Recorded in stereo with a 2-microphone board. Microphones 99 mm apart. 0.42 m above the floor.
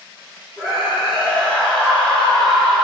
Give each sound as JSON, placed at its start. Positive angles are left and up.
{"t": 0.6, "sound": "a scream", "side_deg": 30, "distance_m": 3.5}